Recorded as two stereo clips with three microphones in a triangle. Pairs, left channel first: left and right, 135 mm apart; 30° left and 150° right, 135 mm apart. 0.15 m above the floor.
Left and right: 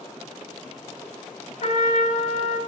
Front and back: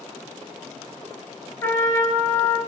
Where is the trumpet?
100° left, 0.7 m.